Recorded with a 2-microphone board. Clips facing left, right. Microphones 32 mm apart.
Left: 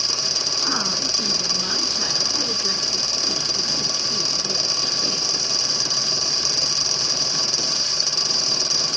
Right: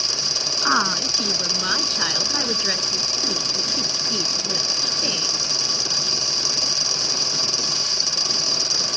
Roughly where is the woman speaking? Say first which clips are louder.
Right 8 dB; right.